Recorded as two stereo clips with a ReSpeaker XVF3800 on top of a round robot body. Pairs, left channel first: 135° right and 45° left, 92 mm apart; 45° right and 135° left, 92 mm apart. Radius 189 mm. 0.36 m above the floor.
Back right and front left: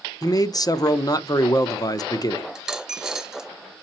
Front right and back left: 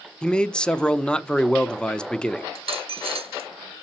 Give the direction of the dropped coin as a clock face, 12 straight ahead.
8 o'clock.